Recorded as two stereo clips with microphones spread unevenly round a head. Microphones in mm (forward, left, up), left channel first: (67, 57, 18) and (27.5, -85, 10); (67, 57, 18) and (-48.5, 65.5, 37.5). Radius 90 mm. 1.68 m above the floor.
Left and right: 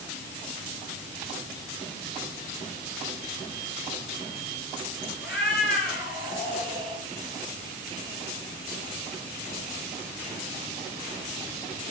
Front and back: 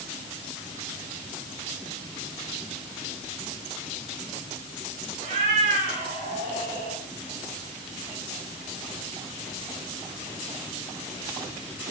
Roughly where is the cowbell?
No cowbell in this recording.